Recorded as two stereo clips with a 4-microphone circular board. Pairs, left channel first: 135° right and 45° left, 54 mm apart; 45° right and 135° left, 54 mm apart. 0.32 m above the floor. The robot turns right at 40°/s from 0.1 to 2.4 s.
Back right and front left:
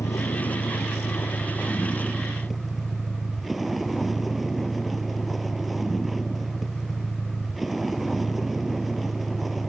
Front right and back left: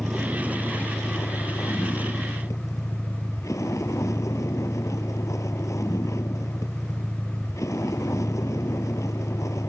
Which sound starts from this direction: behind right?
A vehicle, at 0.0 s.